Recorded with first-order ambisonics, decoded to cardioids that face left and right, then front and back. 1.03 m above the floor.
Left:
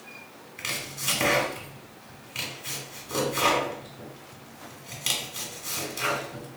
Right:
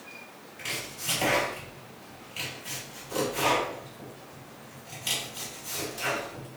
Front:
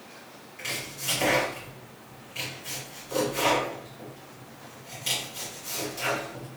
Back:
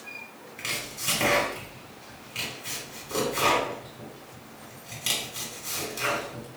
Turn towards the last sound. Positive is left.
turn(degrees=115)